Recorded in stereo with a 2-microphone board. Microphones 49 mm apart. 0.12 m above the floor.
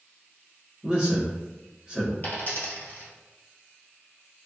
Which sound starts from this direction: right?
A man speaking, at 0.8 s.